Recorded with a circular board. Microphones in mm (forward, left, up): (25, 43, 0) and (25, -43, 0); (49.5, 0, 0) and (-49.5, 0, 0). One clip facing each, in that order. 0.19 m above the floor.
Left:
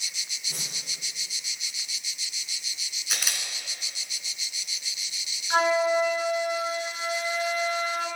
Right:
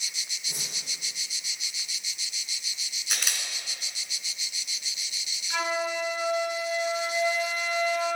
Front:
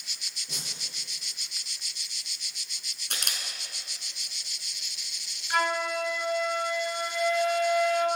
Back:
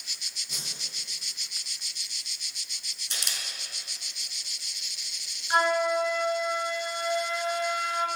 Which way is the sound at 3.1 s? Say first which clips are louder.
Even, front 2 dB; straight ahead.